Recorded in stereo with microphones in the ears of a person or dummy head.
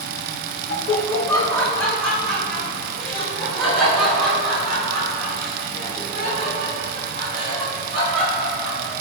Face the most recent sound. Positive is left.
turn(degrees=-5)  # may be behind; listen again after turning